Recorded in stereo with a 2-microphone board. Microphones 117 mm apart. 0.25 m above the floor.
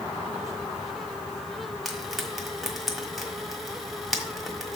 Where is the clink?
No clink in this recording.